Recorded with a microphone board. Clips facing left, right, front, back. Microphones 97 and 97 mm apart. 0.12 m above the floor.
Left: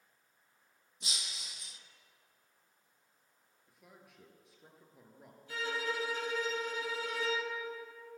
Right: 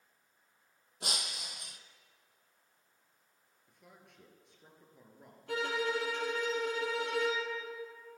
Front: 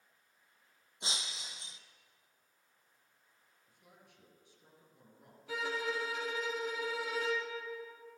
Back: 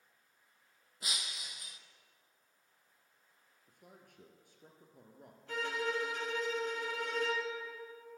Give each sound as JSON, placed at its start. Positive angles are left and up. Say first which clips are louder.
{"t": 1.0, "sound": "breaking glass", "louder": "right 6 dB, front 1 dB", "azimuth_deg": -60, "distance_m": 0.8}
{"t": 3.7, "sound": "a man speaking", "louder": "even, back 4 dB", "azimuth_deg": 175, "distance_m": 2.5}
{"t": 5.5, "sound": "a violin", "louder": "right 4 dB, even", "azimuth_deg": -85, "distance_m": 3.5}